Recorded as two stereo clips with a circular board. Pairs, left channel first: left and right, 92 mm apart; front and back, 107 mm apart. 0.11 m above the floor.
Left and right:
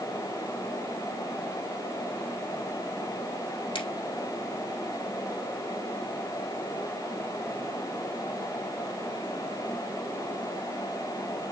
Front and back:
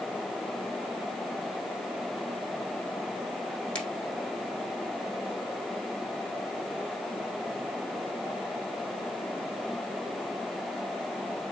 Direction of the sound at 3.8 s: 80° left.